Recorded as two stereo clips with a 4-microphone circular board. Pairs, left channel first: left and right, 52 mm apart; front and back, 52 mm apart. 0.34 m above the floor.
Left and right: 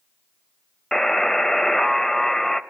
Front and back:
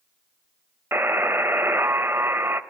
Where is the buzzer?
170° left, 0.5 m.